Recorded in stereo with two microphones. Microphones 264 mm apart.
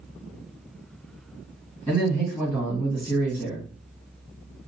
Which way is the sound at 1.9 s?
10° right (ahead or behind).